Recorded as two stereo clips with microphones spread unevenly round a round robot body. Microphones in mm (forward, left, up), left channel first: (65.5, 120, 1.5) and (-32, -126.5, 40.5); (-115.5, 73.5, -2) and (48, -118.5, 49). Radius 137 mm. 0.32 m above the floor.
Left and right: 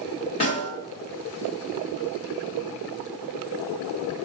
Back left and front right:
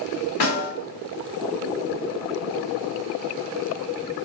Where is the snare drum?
130° left, 1.9 m.